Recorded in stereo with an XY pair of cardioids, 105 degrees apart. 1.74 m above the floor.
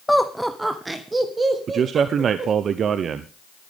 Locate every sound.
0.1 s laughter: 10° left, 1.0 m; by 2.5 s 35° right, 3.5 m
1.7 s a man speaking: 55° right, 1.0 m